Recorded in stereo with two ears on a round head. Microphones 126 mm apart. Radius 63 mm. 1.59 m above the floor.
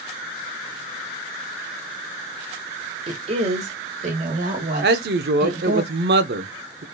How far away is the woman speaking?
About 1.4 m.